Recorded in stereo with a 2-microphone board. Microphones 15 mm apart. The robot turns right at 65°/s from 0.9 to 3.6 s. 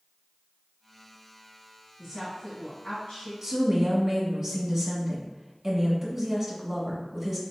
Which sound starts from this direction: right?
A woman speaking, at 3.4 s.